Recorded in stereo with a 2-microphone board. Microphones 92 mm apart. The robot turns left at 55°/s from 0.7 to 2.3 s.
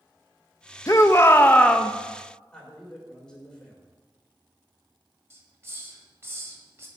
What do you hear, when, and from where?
0.9 s a shout: 65° left, 0.5 m; by 1.9 s 10° left, 0.5 m
2.5 s a man speaking: 10° left (ahead or behind), 2.5 m
5.3 s a hiss: 30° right (ahead or behind), 1.2 m